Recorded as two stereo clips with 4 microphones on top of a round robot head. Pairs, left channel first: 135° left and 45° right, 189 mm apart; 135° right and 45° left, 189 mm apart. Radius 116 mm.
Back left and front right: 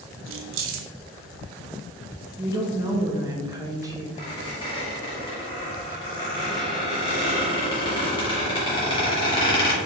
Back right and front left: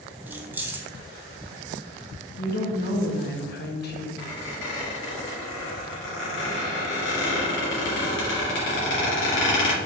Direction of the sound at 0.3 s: 35° right.